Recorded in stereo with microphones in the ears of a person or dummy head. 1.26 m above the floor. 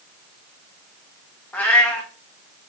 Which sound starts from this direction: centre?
A cat meowing, at 1.5 s.